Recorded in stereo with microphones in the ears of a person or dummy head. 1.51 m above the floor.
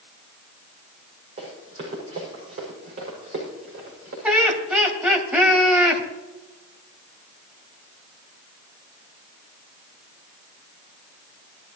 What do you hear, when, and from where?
1.4 s running footsteps: 35° right (ahead or behind), 6 m; by 4.1 s 50° right (ahead or behind), 6.5 m
4.2 s laughter: 5° right (ahead or behind), 3 m